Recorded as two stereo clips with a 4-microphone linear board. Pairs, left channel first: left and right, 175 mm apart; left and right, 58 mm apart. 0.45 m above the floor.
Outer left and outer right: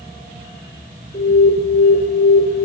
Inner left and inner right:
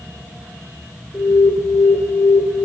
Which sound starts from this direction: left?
An alarm, at 1.1 s.